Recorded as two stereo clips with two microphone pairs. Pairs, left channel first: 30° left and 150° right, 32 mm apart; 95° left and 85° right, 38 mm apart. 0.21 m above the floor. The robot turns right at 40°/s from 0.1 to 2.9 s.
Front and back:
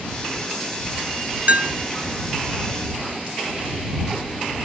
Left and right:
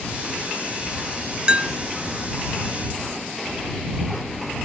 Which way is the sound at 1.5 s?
145° right.